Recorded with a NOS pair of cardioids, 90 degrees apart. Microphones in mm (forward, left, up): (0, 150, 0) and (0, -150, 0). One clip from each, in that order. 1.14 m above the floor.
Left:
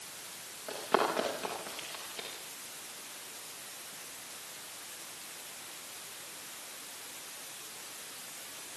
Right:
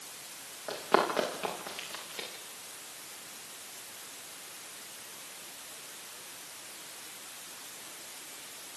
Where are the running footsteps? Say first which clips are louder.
Right 2 dB; 30° right, 9.5 m.